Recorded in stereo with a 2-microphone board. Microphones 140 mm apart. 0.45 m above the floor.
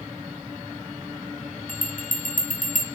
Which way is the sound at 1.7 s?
70° left (ahead or behind).